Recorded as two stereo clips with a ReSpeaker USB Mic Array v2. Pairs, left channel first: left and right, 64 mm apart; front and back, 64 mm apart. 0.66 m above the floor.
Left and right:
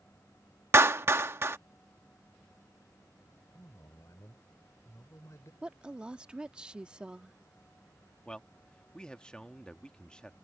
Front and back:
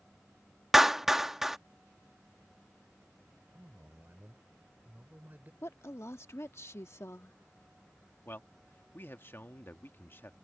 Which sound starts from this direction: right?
A clap, at 0.7 s.